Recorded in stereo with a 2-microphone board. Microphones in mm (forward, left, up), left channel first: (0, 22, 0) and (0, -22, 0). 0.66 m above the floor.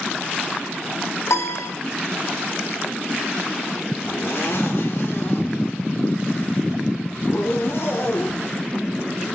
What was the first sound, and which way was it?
A piano, 80° left.